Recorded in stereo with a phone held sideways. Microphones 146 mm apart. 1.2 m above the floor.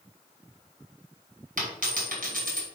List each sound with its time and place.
1.6 s a dropped coin: 65° right (ahead or behind), 3.5 m